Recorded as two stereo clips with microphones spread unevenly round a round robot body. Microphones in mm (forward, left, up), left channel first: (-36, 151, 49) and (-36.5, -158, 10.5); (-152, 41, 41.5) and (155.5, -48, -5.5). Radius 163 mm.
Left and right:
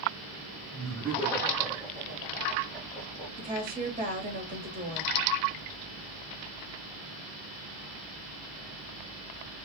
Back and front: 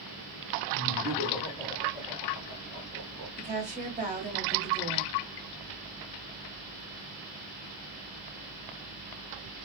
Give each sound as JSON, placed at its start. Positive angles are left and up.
{"t": 0.7, "sound": "laughter", "azimuth_deg": 175, "distance_m": 1.4}
{"t": 3.4, "sound": "a woman speaking", "azimuth_deg": -55, "distance_m": 1.4}